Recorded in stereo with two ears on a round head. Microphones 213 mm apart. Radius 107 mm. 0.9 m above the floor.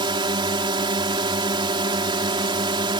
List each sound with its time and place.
0.0 s a drone: 20° right (ahead or behind)